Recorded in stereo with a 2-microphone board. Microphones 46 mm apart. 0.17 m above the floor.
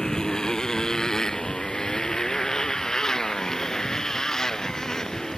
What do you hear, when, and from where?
0.0 s a motorcycle: 10° left (ahead or behind)